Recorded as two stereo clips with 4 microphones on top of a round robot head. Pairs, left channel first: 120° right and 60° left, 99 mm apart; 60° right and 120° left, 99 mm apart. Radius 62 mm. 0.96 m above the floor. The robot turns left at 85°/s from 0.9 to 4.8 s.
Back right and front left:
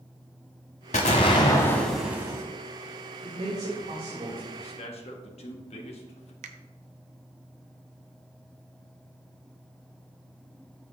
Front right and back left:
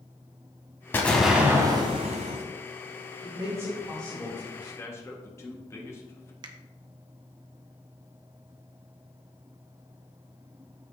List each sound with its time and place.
0.9 s an explosion: 125° right, 1.1 m; by 2.4 s 110° left, 1.1 m
3.2 s a man speaking: 90° left, 3 m; by 4.5 s 15° right, 3 m
4.6 s a man speaking: 100° right, 1.6 m; by 6.3 s 120° right, 1.6 m
6.4 s a finger snap: 75° left, 0.7 m